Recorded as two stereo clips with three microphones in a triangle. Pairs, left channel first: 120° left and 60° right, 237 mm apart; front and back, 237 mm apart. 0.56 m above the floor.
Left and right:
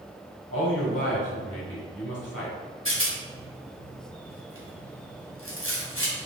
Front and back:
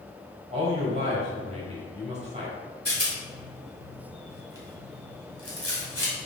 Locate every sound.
0.5 s a man speaking: 120° left, 3 m
2.9 s a rattle: 145° left, 2 m